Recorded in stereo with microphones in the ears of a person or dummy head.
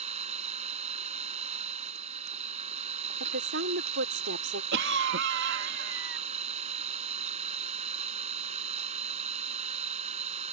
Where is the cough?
65° right (ahead or behind).